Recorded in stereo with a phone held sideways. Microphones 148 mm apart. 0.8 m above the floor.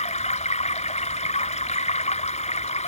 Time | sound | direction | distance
0.0 | running water | 50° left (ahead or behind) | ?